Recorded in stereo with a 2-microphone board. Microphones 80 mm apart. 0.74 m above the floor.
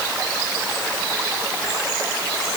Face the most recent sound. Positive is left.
No sound to turn to.